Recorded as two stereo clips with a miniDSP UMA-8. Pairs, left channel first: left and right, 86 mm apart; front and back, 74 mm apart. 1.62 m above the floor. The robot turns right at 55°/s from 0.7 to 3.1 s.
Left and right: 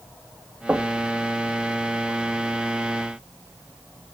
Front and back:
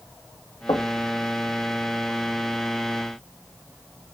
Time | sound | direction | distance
0.7 | knocking | 20° right | 2 m